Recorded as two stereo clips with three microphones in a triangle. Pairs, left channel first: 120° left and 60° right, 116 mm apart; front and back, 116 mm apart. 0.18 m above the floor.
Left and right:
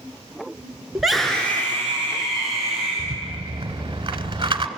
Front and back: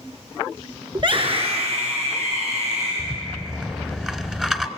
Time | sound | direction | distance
0.9 | a scream | 145° right | 1.8 m
3.0 | a rattle | 95° right | 1.0 m